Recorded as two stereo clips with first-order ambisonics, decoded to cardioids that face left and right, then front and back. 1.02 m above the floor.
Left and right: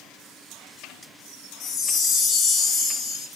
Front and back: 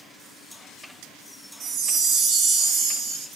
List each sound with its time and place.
1.6 s a chime: 145° left, 0.7 m